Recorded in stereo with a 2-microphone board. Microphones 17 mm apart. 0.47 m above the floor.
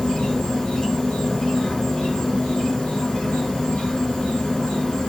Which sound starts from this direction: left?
An insect, at 0.0 s.